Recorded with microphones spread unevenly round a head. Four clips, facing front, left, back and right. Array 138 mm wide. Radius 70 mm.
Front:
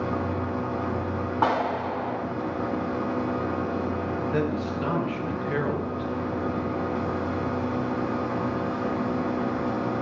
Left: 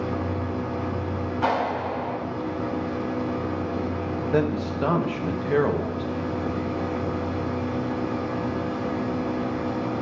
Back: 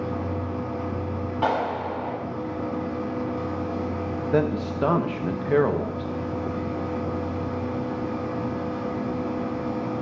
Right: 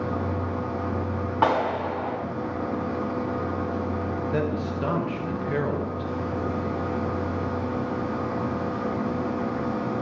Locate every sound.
0.0 s a machine running: 25° right, 1.1 m
1.4 s a clap: 55° right, 3.5 m
4.3 s a man speaking: 155° left, 0.8 m